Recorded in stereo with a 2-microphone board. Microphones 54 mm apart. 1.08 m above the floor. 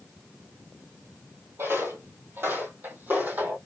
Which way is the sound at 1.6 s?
45° right (ahead or behind).